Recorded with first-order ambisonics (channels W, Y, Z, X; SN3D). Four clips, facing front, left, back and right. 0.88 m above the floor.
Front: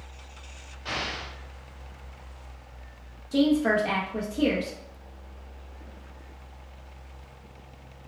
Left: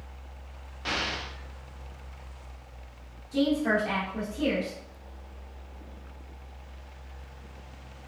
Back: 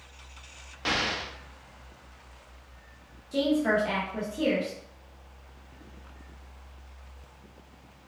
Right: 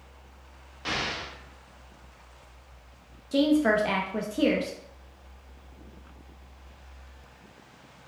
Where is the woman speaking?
70° right, 0.6 m.